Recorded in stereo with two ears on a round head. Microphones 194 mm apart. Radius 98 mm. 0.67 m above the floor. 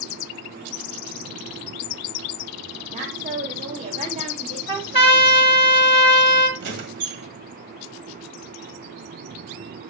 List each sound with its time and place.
2.9 s a woman speaking: 35° right (ahead or behind), 3 m
4.7 s a trumpet: 25° right (ahead or behind), 1.2 m
6.6 s a squeak: 60° right (ahead or behind), 1.7 m